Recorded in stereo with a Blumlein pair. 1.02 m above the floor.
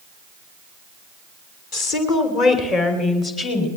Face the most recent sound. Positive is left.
turn(degrees=25)